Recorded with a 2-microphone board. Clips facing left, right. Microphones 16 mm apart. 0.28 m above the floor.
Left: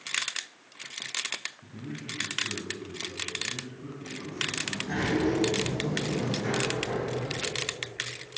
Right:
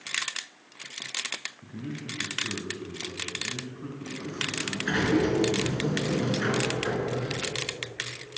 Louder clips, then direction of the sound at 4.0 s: Even; 60° right (ahead or behind).